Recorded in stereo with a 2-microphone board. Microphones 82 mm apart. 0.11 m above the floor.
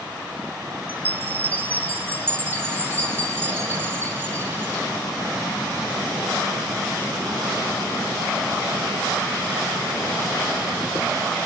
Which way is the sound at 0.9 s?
25° right (ahead or behind).